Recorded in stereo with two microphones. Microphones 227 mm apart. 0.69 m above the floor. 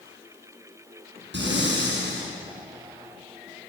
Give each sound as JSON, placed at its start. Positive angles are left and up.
{"t": 1.3, "sound": "breathing", "side_deg": -50, "distance_m": 8.0}